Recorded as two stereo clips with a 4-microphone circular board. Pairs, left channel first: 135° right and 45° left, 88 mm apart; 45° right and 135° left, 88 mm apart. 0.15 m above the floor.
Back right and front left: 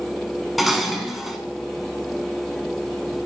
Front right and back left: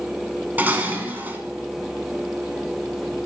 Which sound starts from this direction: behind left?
Dishes clattering, at 0.6 s.